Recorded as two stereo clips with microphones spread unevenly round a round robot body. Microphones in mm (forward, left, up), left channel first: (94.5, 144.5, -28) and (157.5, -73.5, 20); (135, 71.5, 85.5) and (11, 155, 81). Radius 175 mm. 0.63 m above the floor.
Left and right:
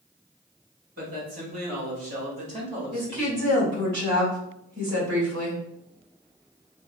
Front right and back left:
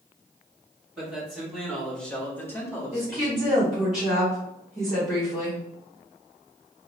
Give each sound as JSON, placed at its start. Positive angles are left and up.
{"t": 1.0, "sound": "a man speaking", "azimuth_deg": -135, "distance_m": 1.6}
{"t": 2.9, "sound": "a woman speaking", "azimuth_deg": -130, "distance_m": 1.6}